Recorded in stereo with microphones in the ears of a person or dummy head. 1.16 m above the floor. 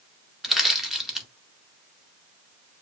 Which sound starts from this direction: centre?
Crushing, at 0.4 s.